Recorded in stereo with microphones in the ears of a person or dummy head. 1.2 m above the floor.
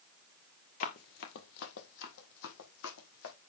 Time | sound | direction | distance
0.8 | running footsteps | 45° left (ahead or behind) | 1.6 m